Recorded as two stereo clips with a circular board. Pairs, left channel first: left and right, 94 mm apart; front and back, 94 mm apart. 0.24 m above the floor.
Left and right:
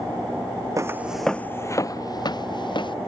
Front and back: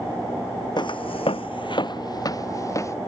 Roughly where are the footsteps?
Ahead right.